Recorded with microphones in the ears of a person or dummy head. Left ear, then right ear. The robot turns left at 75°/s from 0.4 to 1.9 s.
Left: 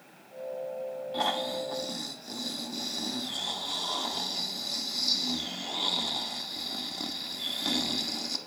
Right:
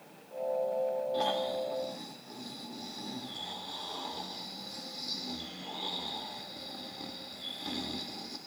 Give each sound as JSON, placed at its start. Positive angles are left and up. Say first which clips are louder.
{"t": 1.1, "sound": "snoring", "louder": "left 1 dB", "azimuth_deg": 155, "distance_m": 0.7}